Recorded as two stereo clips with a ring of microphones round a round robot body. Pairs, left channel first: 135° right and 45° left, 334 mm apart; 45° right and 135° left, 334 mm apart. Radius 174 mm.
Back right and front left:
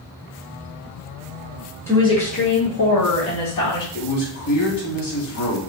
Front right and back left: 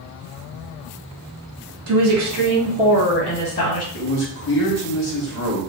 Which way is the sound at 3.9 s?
100° right.